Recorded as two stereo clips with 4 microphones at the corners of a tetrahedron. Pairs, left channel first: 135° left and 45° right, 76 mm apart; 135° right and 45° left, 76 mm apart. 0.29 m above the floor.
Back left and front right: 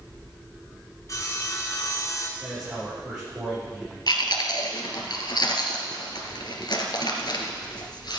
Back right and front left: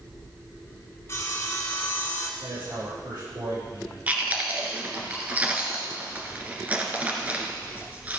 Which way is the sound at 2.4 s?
25° left.